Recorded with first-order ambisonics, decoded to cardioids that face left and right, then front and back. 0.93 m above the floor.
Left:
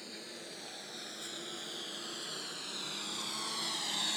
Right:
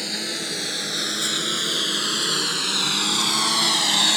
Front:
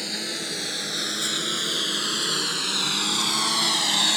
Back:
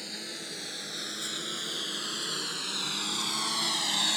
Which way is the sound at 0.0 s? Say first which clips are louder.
Right 19 dB, front 9 dB; 60° right.